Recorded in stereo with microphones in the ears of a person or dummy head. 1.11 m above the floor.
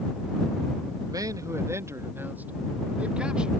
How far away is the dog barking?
I don't hear a dog barking.